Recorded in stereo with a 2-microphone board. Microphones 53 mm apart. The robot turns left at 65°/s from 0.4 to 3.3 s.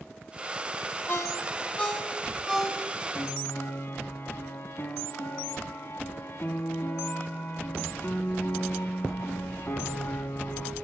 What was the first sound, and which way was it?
A ringtone, 55° left (ahead or behind).